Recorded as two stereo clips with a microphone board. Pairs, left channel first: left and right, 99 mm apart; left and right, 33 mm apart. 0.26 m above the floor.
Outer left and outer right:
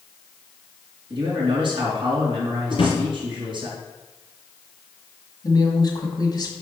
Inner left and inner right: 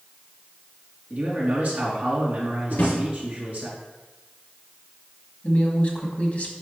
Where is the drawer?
60° left (ahead or behind), 2.5 m.